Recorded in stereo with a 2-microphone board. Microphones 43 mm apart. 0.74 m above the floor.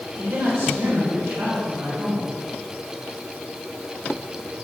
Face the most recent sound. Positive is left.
turn(degrees=-75)  # may be behind; listen again after turning